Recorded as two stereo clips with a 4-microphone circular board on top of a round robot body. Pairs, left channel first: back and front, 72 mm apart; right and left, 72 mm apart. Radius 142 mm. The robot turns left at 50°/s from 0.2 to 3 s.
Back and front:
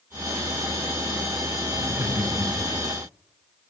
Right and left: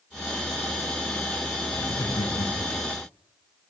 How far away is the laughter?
About 4.5 m.